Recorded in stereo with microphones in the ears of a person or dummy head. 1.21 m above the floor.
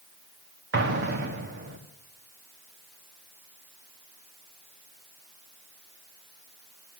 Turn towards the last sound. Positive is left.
turn(degrees=-60)  # may be behind; listen again after turning